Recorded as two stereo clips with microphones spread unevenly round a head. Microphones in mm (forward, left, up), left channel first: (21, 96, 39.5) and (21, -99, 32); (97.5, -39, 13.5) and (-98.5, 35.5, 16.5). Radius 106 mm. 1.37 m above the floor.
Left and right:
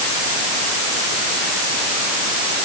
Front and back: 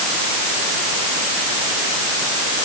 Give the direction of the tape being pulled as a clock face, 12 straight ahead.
No tape being pulled in this recording.